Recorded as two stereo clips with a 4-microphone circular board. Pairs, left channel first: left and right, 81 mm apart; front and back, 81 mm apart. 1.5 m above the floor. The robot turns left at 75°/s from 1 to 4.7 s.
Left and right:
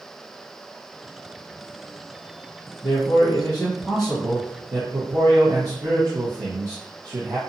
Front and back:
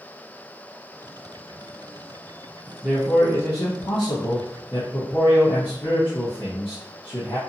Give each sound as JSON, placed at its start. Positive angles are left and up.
{"t": 2.8, "sound": "a man speaking", "azimuth_deg": 85, "distance_m": 0.8}